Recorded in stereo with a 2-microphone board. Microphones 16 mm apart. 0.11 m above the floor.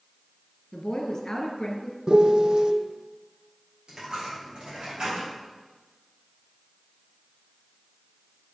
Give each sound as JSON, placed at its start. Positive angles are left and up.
{"t": 0.7, "sound": "a woman speaking", "side_deg": 40, "distance_m": 1.6}
{"t": 2.1, "sound": "a piano", "side_deg": -70, "distance_m": 0.8}
{"t": 3.9, "sound": "a dropped coin", "side_deg": -60, "distance_m": 4.5}